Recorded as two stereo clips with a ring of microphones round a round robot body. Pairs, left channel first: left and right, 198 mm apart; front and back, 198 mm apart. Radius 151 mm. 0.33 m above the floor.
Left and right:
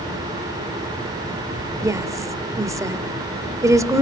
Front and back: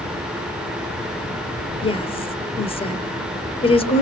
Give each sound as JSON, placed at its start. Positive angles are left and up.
{"t": 1.8, "sound": "a woman speaking", "azimuth_deg": -30, "distance_m": 1.5}